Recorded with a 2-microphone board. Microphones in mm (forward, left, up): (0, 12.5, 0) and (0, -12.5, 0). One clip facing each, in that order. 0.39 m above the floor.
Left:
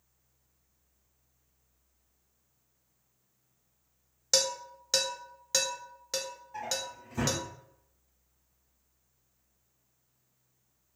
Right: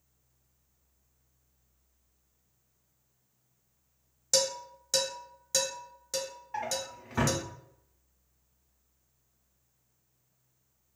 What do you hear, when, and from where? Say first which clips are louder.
4.3 s dishes clattering: even; 30° left (ahead or behind), 0.7 m
6.5 s a drawer: right 2 dB; 55° right (ahead or behind), 0.7 m